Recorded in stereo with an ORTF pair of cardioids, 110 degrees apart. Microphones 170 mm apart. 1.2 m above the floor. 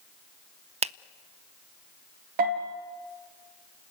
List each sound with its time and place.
0.8 s a finger snap: 40° right, 0.5 m
2.4 s a bell: 70° right, 4 m